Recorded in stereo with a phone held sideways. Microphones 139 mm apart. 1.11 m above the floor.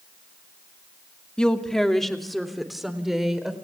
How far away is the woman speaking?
About 2 m.